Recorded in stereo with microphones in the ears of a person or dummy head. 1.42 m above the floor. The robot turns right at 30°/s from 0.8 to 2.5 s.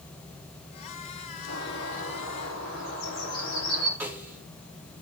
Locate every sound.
1.5 s a bird: 85° left, 7.5 m; by 3.9 s 115° left, 7.5 m
4.0 s a snare drum: 10° right (ahead or behind), 1.8 m